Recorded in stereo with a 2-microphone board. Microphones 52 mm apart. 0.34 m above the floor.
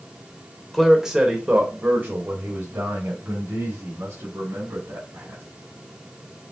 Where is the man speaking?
5° left (ahead or behind), 0.9 m; by 5.4 s 70° right (ahead or behind), 3 m.